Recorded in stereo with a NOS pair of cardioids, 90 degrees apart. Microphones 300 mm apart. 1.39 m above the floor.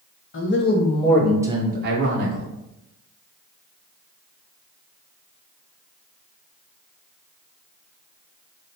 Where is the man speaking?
40° left, 0.9 m; by 2.5 s 55° right, 0.9 m.